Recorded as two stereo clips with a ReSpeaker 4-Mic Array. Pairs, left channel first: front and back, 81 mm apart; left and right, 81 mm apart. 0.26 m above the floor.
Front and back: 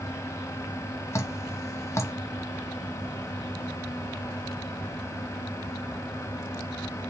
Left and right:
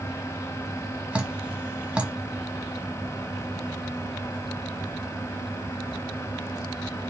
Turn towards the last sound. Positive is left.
turn(degrees=-20)